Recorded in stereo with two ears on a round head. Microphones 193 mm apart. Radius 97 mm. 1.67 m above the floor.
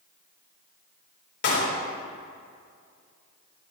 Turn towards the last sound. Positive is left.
turn(degrees=60)  # may be behind; listen again after turning